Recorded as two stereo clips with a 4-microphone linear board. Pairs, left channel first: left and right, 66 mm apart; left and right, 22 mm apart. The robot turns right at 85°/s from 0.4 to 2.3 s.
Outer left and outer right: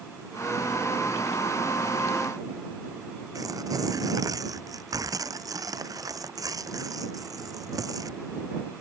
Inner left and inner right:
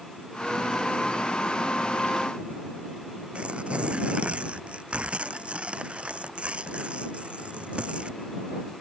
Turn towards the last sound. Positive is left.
turn(degrees=-60)  # may be behind; listen again after turning